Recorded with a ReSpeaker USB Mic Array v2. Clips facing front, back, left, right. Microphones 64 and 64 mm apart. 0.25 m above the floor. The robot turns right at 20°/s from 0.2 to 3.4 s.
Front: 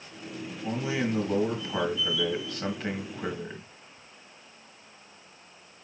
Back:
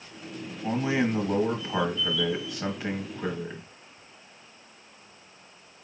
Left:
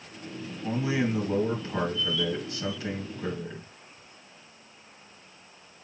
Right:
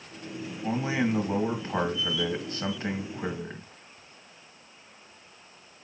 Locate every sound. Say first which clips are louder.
0.6 s a man speaking: back 4 dB, even; 130° right, 1.5 m; by 3.7 s 75° right, 1.5 m